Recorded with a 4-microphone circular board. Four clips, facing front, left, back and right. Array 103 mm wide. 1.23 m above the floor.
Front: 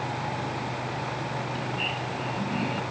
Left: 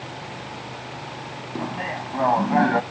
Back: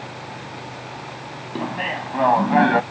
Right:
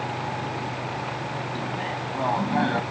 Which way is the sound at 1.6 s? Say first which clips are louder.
Left 1 dB, back 5 dB; 160° left.